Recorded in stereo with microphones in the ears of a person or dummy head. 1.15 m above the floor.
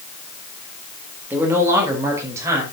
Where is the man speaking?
5° right (ahead or behind), 3.5 m; by 2.6 s 15° right (ahead or behind), 5 m.